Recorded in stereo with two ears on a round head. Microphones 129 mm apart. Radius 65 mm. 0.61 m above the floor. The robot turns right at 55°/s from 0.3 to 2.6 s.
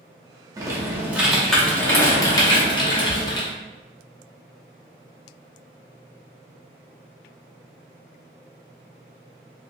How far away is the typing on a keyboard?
About 0.9 m.